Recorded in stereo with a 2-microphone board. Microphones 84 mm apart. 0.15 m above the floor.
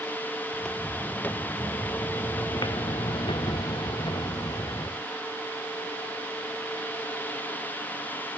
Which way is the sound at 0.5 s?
10° left (ahead or behind).